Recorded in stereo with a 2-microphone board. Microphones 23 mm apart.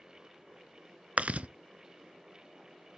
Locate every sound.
1.2 s chewing: 70° right (ahead or behind), 0.5 m